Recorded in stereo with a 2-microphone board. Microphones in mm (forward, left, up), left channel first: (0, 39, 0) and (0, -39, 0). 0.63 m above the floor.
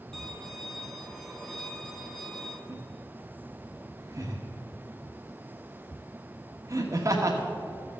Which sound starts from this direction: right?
Laughter, at 2.7 s.